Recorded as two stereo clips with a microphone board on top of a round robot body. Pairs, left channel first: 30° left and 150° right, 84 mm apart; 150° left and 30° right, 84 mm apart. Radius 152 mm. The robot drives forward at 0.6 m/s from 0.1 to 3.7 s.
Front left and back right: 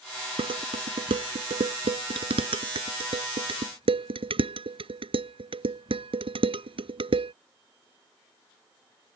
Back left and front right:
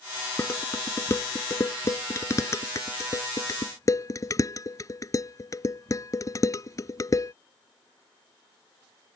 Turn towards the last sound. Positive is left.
turn(degrees=-155)